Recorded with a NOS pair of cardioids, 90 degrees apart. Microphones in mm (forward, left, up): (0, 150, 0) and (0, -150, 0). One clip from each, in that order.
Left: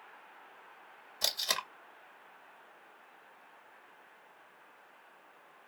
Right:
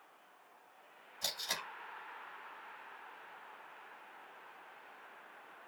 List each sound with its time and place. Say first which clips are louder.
1.2 s tape being pulled: left 6 dB; 70° left, 1.7 m